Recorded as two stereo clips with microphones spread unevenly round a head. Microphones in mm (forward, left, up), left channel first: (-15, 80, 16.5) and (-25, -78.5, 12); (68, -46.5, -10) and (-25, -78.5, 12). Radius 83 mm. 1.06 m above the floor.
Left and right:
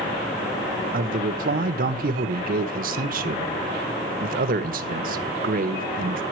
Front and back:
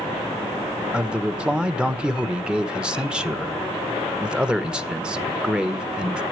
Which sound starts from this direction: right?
A man speaking, at 0.9 s.